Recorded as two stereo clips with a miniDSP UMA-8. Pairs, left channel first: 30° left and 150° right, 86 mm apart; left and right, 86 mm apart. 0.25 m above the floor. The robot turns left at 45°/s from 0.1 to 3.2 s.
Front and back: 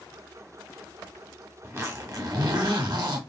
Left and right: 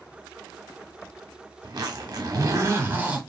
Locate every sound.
1.6 s a zipper: 90° right, 0.9 m; by 3.2 s 160° right, 0.9 m